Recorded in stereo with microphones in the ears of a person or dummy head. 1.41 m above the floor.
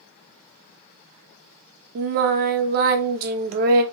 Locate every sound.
1.9 s singing: 55° right (ahead or behind), 0.6 m